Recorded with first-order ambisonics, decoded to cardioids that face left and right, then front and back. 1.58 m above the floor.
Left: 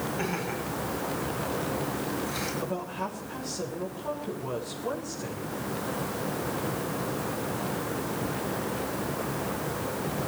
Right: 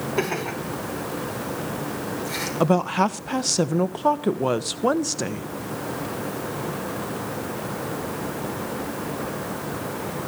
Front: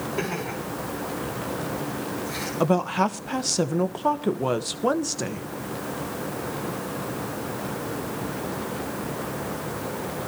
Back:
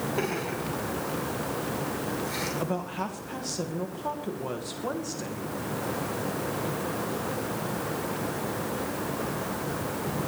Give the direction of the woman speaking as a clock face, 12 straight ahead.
2 o'clock.